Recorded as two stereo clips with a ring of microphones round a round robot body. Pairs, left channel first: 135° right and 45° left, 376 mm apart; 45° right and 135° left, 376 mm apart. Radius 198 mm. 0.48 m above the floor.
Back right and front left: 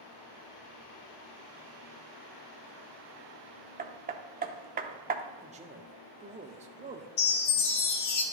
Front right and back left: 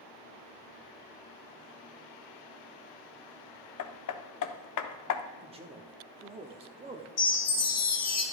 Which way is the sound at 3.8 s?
15° right.